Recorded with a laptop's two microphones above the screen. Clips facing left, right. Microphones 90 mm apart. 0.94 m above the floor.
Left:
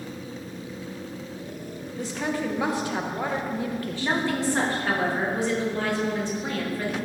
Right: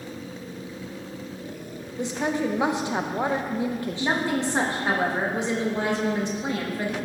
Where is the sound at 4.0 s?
20° right (ahead or behind), 1.5 m.